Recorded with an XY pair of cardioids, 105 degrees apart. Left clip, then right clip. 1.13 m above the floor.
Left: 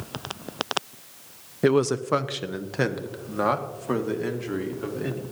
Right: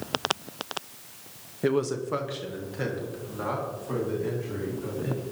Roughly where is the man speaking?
Ahead left.